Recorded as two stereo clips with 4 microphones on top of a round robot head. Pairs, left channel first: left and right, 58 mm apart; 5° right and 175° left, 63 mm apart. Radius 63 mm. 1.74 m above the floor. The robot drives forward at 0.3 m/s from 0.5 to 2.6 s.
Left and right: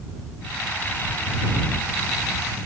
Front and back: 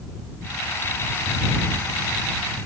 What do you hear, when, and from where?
Only background noise.